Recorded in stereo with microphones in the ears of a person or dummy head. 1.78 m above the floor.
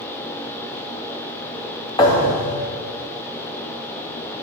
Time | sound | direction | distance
2.0 | a thud | 25° left (ahead or behind) | 3.5 m